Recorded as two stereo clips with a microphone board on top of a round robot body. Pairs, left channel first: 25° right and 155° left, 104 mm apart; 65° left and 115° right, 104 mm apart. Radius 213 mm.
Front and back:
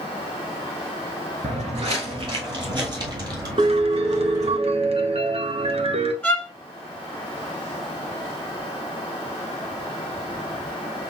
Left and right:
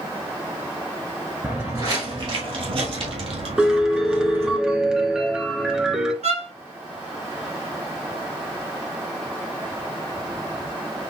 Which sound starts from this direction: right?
A violin, at 6.2 s.